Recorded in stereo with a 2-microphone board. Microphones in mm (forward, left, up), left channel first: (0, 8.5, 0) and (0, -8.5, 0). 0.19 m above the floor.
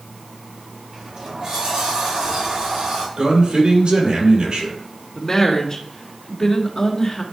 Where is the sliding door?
50° right (ahead or behind), 4 m.